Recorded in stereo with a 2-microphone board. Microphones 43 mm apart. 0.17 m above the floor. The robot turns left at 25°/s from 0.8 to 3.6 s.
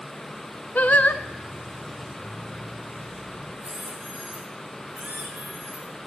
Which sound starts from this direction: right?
A squeak, at 3.6 s.